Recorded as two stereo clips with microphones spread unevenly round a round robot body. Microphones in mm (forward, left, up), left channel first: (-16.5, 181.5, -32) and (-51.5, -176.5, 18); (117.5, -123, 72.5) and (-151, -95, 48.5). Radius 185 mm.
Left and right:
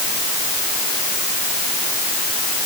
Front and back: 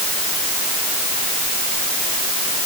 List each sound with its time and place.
Only background noise.